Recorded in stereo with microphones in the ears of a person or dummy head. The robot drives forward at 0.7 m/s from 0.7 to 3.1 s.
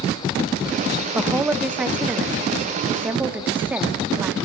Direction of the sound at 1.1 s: Centre (ahead or behind).